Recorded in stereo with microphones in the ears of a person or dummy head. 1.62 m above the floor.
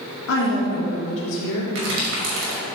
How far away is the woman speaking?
About 1.7 m.